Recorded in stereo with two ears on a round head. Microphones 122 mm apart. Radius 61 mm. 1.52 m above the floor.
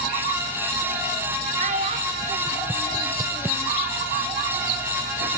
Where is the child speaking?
55° right (ahead or behind), 1.4 m; by 3.7 s 20° left (ahead or behind), 0.8 m.